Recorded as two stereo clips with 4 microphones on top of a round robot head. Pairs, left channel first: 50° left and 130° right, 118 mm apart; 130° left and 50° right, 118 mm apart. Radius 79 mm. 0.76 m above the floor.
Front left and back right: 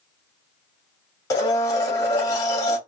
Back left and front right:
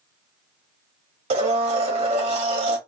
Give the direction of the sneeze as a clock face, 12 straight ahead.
No sneeze in this recording.